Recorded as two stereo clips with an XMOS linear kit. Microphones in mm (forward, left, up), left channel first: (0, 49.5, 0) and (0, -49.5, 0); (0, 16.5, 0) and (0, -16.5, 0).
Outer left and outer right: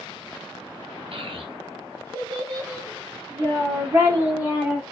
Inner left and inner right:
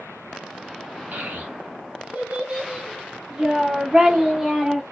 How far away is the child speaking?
About 1.6 m.